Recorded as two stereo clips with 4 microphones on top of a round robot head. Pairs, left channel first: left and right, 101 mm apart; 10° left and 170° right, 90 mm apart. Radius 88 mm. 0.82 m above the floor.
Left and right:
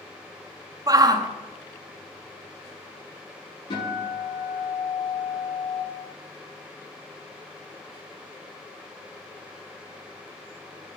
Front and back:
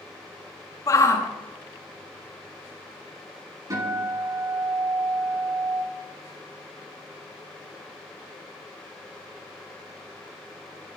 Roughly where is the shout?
Ahead right.